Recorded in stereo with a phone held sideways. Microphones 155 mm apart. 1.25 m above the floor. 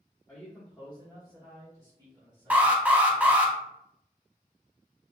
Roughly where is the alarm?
Centre.